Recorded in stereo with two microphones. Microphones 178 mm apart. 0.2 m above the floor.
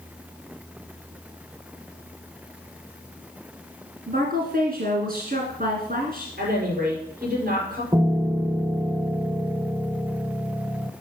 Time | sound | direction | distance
4.1 | a woman speaking | 55° right (ahead or behind) | 1.9 m
6.4 | a woman speaking | 60° right (ahead or behind) | 4.5 m
7.9 | a piano | 20° right (ahead or behind) | 0.5 m